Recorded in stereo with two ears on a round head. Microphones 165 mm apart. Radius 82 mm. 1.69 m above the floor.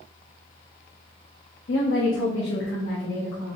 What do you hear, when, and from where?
1.7 s a woman speaking: 65° left (ahead or behind), 0.7 m